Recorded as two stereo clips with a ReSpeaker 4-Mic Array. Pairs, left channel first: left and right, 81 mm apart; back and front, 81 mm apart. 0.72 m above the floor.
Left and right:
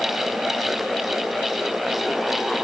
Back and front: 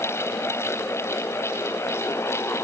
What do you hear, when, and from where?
Only background noise.